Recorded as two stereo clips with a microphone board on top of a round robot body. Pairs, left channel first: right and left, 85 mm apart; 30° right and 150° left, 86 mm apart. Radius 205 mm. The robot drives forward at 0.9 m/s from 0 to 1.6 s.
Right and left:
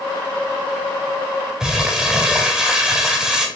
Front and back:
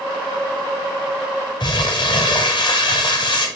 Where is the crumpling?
5° left, 0.8 m.